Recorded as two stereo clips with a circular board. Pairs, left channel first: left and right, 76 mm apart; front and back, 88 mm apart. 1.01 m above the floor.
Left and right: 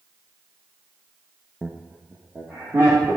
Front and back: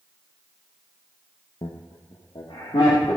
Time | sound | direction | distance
1.6 | laughter | 10° right | 0.8 m